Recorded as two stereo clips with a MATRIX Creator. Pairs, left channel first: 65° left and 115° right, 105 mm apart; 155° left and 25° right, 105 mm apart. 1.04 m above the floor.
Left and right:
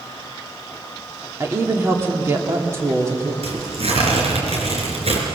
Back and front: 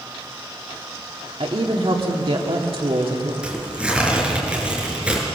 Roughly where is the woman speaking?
Ahead right.